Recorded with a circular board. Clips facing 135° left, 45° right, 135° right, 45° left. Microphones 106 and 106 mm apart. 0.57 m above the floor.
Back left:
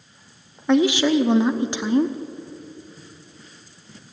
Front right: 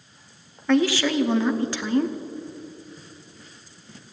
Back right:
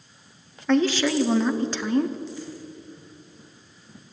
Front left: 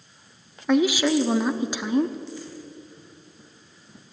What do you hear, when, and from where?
0.7 s a woman speaking: 100° left, 0.7 m